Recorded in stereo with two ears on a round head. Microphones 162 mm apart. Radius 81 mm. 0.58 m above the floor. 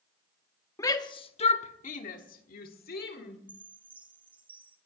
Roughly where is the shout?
Centre.